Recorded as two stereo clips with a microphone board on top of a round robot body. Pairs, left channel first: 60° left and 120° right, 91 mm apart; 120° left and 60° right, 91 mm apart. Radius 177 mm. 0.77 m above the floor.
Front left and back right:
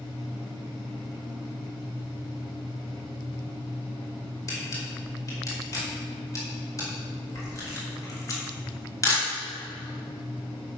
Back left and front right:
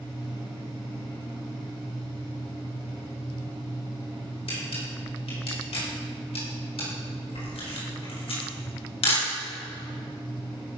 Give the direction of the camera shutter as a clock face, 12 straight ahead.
8 o'clock.